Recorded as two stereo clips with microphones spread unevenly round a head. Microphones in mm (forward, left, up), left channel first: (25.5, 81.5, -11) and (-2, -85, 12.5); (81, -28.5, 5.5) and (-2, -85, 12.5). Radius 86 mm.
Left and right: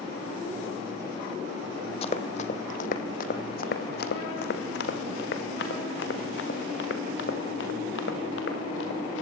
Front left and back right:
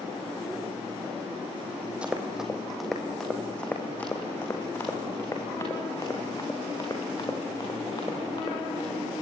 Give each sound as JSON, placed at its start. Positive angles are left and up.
{"t": 2.0, "sound": "running footsteps", "azimuth_deg": 135, "distance_m": 1.8}